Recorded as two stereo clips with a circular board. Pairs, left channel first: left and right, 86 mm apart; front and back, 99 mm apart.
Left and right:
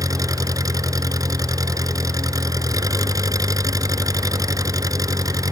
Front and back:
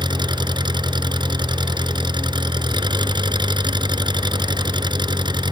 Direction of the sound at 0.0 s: 135° right.